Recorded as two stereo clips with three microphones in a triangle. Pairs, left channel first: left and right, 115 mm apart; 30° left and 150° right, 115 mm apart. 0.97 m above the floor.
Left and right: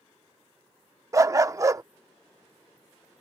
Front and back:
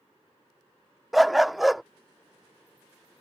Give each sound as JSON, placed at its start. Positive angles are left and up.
{"t": 1.1, "sound": "a dog barking", "azimuth_deg": -60}